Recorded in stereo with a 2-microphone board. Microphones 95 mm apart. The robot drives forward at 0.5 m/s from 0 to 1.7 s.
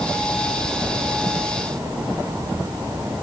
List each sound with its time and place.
Only background noise.